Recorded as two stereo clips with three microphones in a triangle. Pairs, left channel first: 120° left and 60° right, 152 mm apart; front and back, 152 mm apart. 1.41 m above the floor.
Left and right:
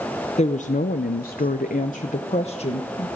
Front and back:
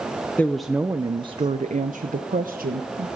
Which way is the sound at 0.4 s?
80° left.